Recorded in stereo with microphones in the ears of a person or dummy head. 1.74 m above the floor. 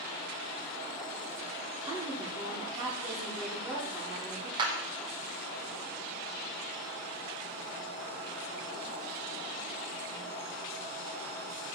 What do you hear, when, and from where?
1.9 s a woman speaking: 20° right (ahead or behind), 1.6 m
4.6 s a clap: 25° right (ahead or behind), 0.9 m